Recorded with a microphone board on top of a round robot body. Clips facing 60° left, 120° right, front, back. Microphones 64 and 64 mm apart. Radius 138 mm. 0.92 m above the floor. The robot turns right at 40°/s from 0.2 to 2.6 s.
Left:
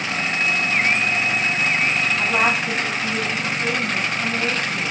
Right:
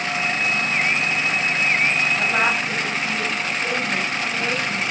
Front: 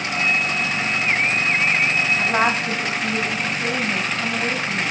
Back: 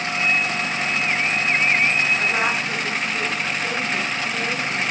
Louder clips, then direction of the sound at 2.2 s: Left 1 dB, front 2 dB; 70° right.